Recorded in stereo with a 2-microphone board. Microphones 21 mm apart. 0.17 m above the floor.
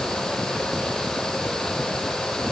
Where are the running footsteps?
No running footsteps in this recording.